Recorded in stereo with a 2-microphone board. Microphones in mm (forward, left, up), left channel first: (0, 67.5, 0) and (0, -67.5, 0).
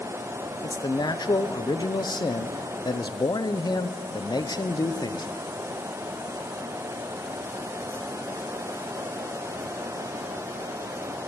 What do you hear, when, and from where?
0.6 s a man speaking: 30° left (ahead or behind), 0.8 m